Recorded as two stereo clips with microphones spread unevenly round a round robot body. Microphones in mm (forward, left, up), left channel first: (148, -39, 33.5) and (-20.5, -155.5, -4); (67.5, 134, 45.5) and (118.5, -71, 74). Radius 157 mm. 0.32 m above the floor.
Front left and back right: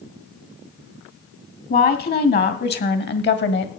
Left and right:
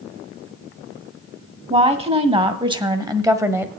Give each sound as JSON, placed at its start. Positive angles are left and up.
{"t": 1.7, "sound": "a woman speaking", "azimuth_deg": -15, "distance_m": 2.0}